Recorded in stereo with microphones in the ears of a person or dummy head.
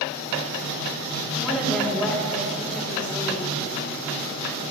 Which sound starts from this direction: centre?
A woman speaking, at 1.4 s.